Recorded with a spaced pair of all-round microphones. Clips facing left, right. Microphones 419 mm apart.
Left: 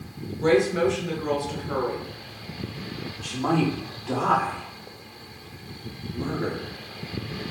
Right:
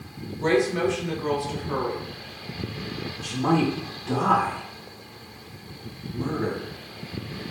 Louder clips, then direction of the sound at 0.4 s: Left 2 dB; 10° right (ahead or behind).